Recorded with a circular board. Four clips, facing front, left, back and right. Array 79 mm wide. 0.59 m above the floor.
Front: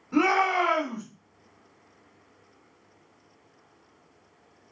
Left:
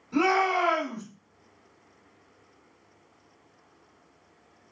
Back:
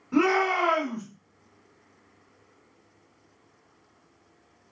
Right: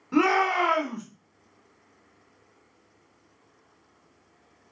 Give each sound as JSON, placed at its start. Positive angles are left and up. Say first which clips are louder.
{"t": 0.1, "sound": "a shout", "louder": "right 2 dB, even", "azimuth_deg": -100, "distance_m": 1.8}